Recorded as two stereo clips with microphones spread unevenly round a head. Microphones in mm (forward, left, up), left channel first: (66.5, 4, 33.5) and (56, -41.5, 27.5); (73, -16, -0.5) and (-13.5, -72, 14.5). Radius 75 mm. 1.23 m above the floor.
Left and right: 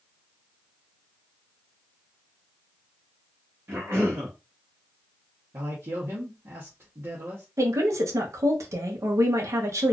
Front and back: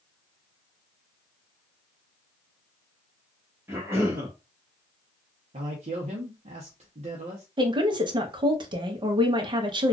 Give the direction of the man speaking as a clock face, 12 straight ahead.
4 o'clock.